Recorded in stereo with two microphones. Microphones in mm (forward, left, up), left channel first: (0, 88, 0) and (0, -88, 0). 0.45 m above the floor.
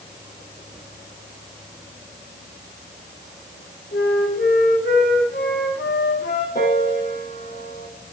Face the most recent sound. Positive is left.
turn(degrees=60)  # may be behind; listen again after turning